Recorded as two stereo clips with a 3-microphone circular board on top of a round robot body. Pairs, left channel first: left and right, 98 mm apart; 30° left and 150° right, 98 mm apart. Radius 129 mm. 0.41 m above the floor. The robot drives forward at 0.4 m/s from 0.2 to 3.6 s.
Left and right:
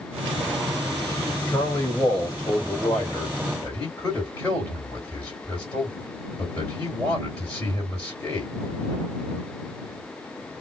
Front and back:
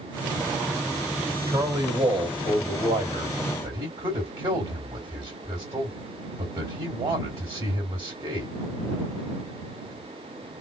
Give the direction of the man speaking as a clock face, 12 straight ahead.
7 o'clock.